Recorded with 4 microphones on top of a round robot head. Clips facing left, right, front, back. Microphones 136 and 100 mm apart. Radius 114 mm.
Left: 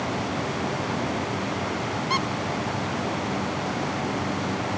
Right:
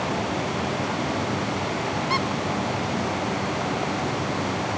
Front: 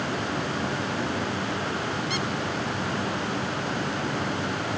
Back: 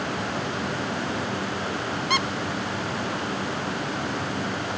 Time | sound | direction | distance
2.1 | a squeak | 165° left | 0.6 m